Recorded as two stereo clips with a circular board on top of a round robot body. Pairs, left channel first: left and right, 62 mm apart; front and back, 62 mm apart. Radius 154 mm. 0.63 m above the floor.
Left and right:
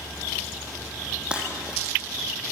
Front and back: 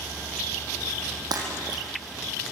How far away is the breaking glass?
About 5 m.